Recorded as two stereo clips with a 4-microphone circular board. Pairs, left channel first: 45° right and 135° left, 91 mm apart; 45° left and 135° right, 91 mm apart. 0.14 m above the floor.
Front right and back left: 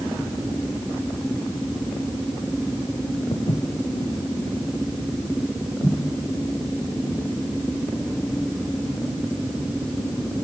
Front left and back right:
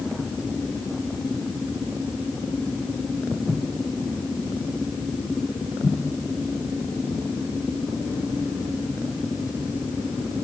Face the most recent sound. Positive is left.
turn(degrees=-55)